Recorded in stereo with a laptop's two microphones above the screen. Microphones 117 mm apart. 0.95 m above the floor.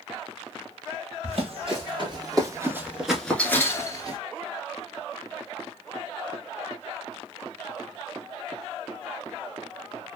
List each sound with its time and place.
1.2 s running footsteps: 55° right (ahead or behind), 1.6 m; by 4.2 s 35° left (ahead or behind), 1.2 m